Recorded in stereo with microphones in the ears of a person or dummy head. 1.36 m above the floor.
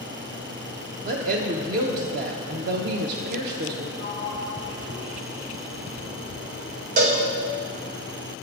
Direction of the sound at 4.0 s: 25° left (ahead or behind).